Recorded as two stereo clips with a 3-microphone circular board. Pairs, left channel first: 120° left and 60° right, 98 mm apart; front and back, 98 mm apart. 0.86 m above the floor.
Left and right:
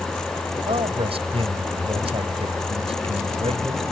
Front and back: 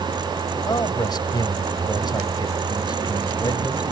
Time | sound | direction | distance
0.7 | a man speaking | 45° right | ?